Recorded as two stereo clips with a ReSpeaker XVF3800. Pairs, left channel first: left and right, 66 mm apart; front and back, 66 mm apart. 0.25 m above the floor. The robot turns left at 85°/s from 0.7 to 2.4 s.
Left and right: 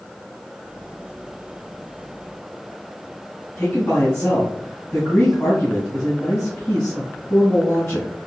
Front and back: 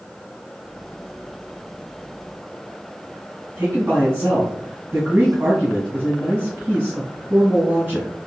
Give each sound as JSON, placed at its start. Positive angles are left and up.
{"t": 3.6, "sound": "a man speaking", "azimuth_deg": 125, "distance_m": 2.5}